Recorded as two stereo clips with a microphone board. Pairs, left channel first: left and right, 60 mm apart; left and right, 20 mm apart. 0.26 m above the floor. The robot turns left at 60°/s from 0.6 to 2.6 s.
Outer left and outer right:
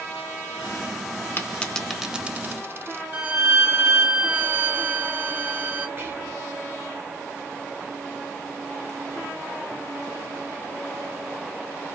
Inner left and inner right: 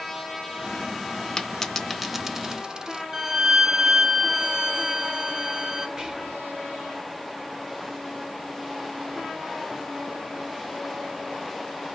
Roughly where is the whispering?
Right.